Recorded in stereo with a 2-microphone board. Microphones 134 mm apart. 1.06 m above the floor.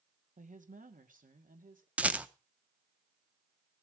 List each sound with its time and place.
0.4 s a woman speaking: 70° right (ahead or behind), 1.3 m; by 1.9 s 85° right, 2.5 m
2.0 s a rattle: 10° right (ahead or behind), 0.6 m